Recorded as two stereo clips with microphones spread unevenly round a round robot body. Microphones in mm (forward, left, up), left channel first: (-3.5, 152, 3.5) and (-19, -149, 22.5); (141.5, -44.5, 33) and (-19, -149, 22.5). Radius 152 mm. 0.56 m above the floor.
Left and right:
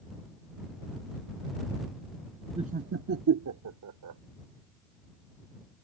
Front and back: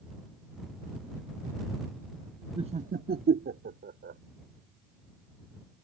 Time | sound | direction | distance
2.6 | laughter | 155° right | ?